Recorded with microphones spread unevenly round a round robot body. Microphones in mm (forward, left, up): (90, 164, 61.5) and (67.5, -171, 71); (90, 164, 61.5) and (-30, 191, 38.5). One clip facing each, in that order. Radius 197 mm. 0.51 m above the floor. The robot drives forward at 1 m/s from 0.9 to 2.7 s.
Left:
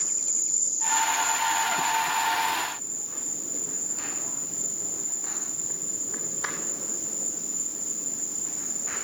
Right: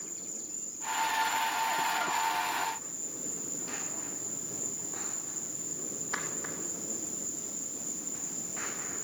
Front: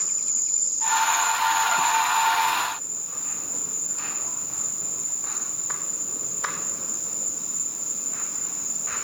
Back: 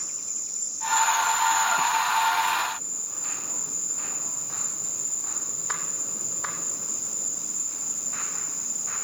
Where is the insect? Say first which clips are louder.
Left 1 dB, front 3 dB; 90° left, 0.9 m; by 9.0 s 155° left, 2 m.